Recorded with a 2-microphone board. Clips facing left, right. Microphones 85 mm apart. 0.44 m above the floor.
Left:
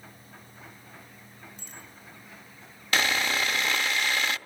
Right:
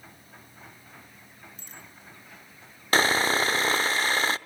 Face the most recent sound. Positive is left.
turn(degrees=-40)  # may be behind; listen again after turning